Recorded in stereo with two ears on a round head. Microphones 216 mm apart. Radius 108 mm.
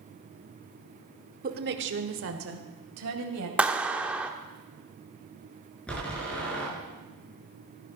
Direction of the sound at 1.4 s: 35° right (ahead or behind).